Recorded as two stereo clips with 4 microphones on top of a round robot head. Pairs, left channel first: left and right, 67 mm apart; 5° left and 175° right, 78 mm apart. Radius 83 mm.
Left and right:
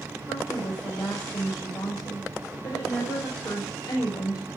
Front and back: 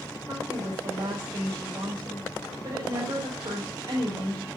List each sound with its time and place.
0.3 s a woman speaking: 140° left, 6.5 m